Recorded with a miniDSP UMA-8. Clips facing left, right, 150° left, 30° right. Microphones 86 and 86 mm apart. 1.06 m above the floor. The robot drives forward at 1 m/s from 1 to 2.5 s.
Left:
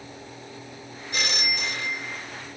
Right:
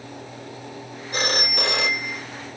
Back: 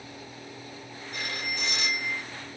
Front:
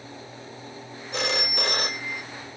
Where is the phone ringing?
35° right; by 2.2 s 115° right.